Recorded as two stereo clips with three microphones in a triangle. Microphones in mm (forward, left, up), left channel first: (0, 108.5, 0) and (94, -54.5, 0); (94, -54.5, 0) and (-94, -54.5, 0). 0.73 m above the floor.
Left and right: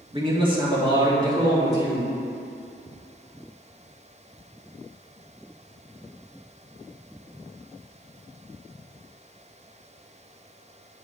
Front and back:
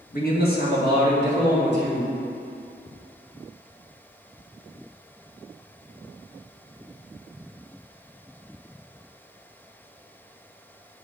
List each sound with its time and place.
0.1 s a man speaking: 5° right, 1.3 m; by 2.1 s 10° left, 2.5 m